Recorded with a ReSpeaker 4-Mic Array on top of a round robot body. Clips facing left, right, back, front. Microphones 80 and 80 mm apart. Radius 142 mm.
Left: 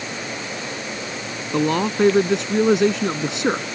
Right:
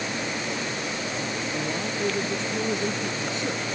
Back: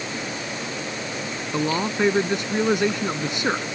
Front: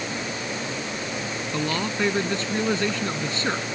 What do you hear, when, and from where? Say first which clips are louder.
1.5 s a man speaking: left 15 dB, back 4 dB; 105° left